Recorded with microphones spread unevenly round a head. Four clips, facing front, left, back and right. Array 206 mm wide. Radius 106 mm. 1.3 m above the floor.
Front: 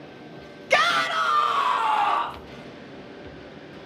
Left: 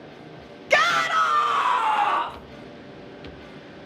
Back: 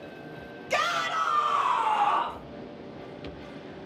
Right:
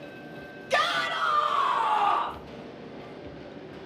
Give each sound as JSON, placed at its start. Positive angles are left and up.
{"t": 0.7, "sound": "a shout", "azimuth_deg": 50, "distance_m": 1.2}